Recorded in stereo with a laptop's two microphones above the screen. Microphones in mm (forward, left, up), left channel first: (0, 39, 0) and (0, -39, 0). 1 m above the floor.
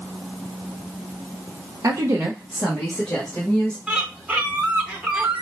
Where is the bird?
15° right (ahead or behind), 0.7 m.